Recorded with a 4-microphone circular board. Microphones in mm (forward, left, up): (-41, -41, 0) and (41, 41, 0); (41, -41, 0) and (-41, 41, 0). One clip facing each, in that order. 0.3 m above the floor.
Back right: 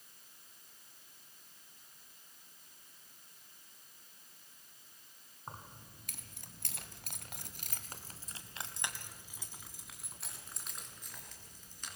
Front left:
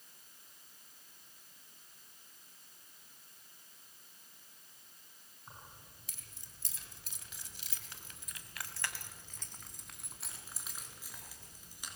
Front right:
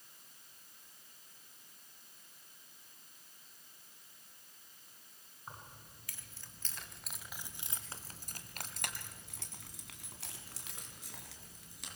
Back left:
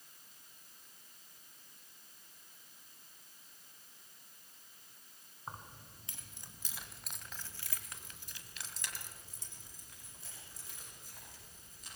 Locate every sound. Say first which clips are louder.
5.5 s keys jangling: back right 6 dB, back left 3 dB; 170° right, 2.5 m; by 12.0 s 35° right, 4 m